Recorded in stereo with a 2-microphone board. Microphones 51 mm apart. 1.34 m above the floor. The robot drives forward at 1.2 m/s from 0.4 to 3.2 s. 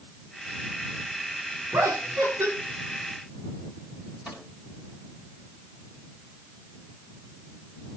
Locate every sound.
1.7 s laughter: 75° right (ahead or behind), 4 m; by 2.5 s 60° right (ahead or behind), 4.5 m
4.2 s a microwave: 15° right (ahead or behind), 9 m